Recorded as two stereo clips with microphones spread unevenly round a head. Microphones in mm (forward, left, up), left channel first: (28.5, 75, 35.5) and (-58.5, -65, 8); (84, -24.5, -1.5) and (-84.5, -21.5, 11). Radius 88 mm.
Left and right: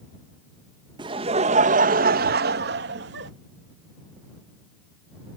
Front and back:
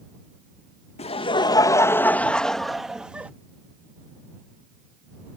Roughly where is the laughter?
Ahead right.